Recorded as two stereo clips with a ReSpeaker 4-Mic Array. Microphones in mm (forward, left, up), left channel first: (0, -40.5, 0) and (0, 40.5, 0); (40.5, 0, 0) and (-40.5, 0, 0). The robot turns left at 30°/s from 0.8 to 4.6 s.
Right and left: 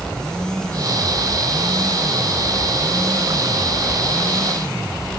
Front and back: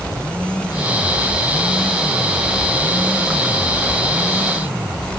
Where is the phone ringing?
No phone ringing in this recording.